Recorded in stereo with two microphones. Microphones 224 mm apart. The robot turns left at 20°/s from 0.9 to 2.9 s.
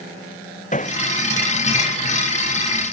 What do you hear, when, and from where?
0.7 s hammering: 30° left (ahead or behind)